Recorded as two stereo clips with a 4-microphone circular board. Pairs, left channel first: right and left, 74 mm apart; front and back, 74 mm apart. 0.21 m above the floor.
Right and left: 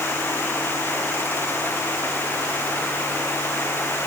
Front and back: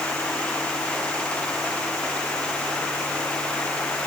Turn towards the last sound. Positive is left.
No sound to turn to.